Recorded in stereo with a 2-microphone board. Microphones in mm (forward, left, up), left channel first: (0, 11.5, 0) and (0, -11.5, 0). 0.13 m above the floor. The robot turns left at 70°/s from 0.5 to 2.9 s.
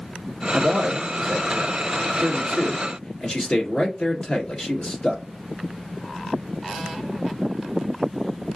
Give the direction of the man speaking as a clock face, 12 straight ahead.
5 o'clock.